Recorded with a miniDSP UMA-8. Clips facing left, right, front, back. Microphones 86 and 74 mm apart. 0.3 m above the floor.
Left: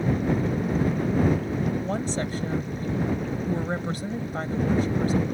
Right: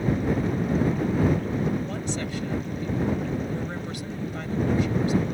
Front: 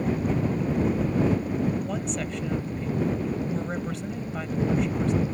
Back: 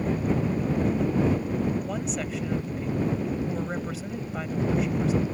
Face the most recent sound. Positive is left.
turn(degrees=95)